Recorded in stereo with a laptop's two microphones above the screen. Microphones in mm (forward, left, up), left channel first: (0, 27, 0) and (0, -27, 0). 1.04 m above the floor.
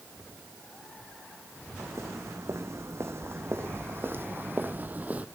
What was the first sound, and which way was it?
Footsteps, 60° right (ahead or behind).